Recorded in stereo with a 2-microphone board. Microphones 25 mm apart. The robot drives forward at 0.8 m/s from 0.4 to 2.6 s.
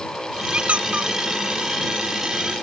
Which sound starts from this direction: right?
A squeak, at 0.5 s.